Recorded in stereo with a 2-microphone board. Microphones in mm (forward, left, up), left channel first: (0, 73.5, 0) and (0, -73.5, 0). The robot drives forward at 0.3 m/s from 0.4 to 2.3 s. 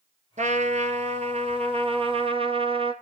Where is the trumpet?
55° right (ahead or behind), 1.4 m; by 2.9 s 40° right (ahead or behind), 1.7 m.